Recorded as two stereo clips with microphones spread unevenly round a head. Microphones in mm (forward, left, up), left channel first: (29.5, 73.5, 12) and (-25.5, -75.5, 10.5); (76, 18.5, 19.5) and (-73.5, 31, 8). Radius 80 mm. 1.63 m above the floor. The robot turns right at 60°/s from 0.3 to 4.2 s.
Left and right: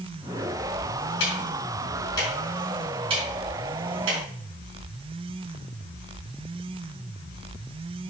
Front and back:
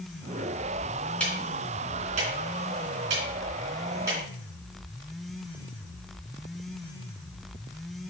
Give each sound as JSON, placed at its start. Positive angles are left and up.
{"t": 1.2, "sound": "ticking", "azimuth_deg": 75, "distance_m": 4.0}